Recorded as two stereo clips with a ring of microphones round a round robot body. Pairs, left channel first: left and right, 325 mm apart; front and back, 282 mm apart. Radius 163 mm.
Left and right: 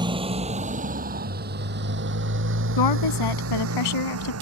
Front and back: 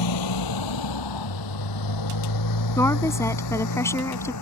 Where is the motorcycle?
15° right; by 4.4 s 40° right.